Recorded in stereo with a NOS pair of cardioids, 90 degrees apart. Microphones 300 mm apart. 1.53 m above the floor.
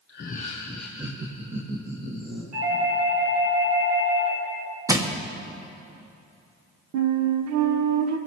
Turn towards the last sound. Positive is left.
turn(degrees=-70)